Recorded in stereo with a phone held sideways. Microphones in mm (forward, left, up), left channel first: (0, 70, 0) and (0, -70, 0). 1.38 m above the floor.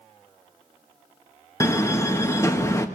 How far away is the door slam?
About 1.3 m.